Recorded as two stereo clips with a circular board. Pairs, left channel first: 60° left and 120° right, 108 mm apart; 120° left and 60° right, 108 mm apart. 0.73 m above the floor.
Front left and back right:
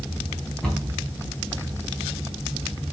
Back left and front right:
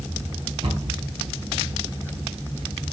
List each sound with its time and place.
0.6 s a cupboard door: 25° right, 5 m